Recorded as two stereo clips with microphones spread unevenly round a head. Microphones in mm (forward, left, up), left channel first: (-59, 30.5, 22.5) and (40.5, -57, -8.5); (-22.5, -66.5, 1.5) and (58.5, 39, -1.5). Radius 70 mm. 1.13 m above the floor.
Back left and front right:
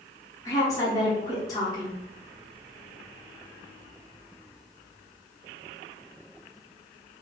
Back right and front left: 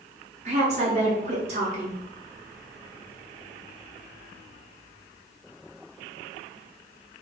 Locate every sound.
0.5 s a woman speaking: 65° left, 0.8 m